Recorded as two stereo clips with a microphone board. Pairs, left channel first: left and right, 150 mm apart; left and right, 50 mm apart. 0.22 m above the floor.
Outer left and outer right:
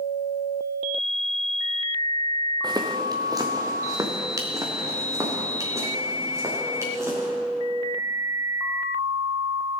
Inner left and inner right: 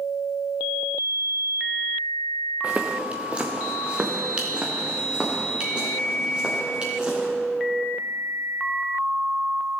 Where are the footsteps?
30° right (ahead or behind), 1.1 m; by 7.3 s 20° right (ahead or behind), 4 m.